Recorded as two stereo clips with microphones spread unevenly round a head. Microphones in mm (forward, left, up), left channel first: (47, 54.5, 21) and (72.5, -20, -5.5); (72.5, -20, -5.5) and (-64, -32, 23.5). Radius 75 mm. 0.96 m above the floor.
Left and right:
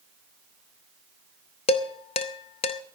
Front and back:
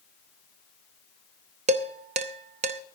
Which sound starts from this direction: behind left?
Dishes clattering, at 1.7 s.